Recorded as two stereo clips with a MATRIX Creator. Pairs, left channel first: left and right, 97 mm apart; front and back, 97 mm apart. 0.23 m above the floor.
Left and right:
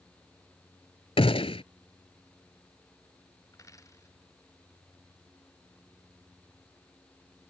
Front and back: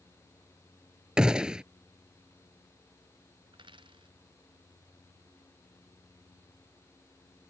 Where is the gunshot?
100° left.